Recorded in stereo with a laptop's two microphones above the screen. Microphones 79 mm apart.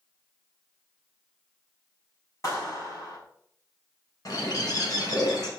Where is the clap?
45° left (ahead or behind), 7 m.